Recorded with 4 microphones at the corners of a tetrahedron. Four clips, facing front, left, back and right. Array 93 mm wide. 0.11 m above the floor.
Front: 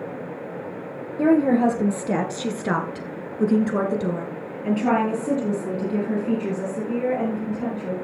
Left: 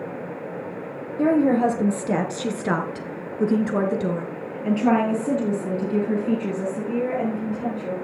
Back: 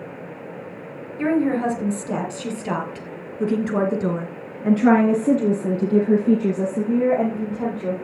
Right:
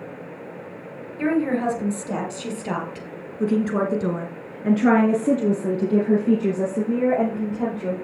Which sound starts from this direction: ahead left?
A woman speaking, at 1.2 s.